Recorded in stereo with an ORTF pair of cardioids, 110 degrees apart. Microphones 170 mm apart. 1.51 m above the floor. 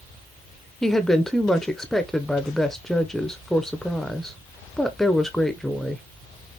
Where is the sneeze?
I don't hear a sneeze.